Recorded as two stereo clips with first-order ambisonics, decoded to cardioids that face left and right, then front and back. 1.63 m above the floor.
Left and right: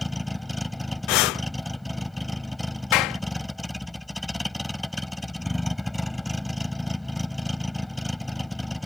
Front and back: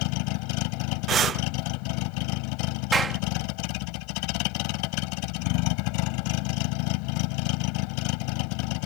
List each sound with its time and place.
0.0 s a vehicle: straight ahead
1.1 s breathing: 115° left
2.9 s a clap: 105° left